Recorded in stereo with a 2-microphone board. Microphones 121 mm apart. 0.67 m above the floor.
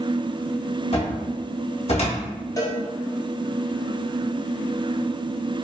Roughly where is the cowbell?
Left.